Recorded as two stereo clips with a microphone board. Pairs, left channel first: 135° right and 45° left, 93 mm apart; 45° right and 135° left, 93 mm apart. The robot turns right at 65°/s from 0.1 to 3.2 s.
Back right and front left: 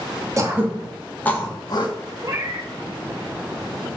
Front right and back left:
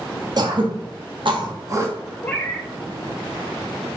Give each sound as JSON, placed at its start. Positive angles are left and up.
{"t": 0.4, "sound": "throat clearing", "azimuth_deg": 95, "distance_m": 1.2}
{"t": 2.2, "sound": "a cat meowing", "azimuth_deg": 10, "distance_m": 1.5}